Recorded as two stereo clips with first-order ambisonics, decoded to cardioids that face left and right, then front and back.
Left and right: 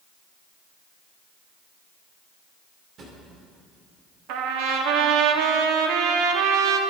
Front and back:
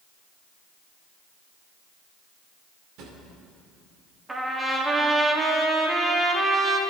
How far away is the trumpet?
About 1.5 m.